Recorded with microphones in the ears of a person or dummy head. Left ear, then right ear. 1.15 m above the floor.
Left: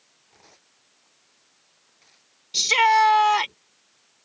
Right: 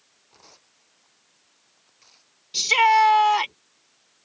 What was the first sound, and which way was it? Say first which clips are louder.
Tearing paper: right 3 dB; 15° right (ahead or behind).